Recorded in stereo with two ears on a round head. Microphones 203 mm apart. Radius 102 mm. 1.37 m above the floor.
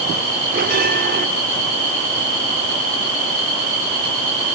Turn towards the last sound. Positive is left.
turn(degrees=-40)  # may be behind; listen again after turning